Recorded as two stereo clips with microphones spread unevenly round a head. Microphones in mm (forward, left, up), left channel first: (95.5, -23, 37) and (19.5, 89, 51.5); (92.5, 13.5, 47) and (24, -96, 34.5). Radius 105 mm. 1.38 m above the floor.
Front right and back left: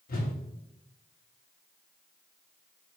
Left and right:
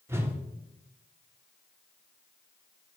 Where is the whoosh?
50° right, 1.2 m.